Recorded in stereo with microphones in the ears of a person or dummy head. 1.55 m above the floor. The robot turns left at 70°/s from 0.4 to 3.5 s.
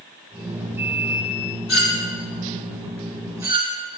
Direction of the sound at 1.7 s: 70° left (ahead or behind).